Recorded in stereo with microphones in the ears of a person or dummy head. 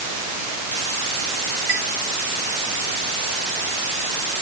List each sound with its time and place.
1.7 s a chime: 35° right (ahead or behind)